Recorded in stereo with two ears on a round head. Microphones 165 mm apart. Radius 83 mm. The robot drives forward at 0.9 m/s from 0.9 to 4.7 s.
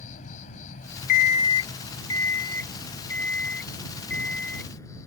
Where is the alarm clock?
45° left (ahead or behind); by 4.7 s 5° left (ahead or behind).